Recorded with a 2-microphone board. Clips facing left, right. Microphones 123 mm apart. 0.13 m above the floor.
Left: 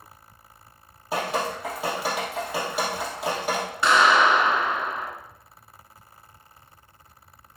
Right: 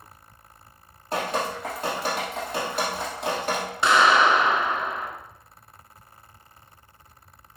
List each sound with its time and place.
1.1 s dripping: 5° left (ahead or behind), 1.5 m
3.8 s a clap: 20° right (ahead or behind), 0.9 m